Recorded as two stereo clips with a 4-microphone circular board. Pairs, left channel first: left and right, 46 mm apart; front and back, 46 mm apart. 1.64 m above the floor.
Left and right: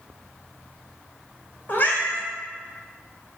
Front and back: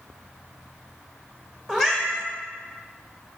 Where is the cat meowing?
85° left, 1.7 m.